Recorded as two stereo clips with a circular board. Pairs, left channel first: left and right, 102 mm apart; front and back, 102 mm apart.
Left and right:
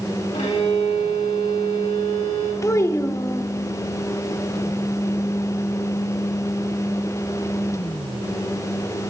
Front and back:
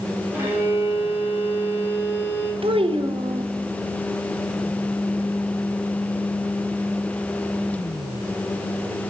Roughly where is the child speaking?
Behind left.